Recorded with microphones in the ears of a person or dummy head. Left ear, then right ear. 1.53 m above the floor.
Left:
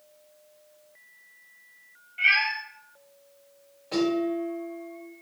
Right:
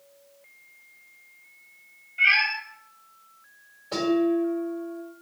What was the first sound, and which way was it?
A cat meowing, 10° left (ahead or behind).